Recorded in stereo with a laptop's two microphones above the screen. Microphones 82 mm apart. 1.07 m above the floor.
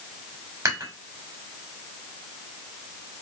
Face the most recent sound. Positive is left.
turn(degrees=-35)  # may be behind; listen again after turning